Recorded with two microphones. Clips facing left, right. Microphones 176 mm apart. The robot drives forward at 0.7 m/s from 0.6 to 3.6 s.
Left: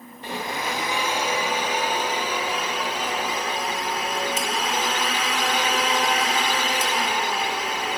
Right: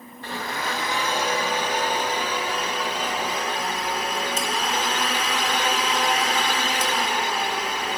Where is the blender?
15° left (ahead or behind), 1.5 m; by 8.0 s 5° left (ahead or behind), 3.5 m.